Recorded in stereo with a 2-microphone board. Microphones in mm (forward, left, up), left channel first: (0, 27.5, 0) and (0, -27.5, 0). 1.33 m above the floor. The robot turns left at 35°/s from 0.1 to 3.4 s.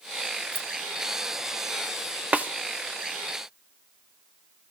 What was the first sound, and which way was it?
Keys jangling, 45° left (ahead or behind).